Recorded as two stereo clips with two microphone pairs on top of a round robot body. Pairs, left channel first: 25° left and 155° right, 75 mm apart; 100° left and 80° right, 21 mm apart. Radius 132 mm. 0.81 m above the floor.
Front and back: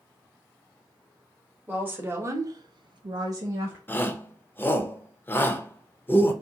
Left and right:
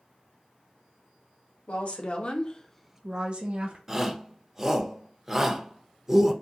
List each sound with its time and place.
1.7 s a woman speaking: 130° left, 1.1 m; by 3.8 s 95° right, 0.9 m
3.9 s a shout: 10° right, 0.8 m